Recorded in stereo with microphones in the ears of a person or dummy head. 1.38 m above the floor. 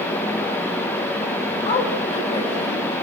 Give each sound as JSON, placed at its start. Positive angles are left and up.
{"t": 1.6, "sound": "a woman speaking", "side_deg": 30, "distance_m": 4.0}